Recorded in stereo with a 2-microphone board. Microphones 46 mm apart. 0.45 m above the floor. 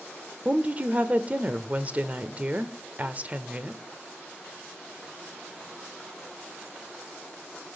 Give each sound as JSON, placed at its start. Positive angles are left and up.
{"t": 0.5, "sound": "a woman speaking", "side_deg": -30, "distance_m": 1.1}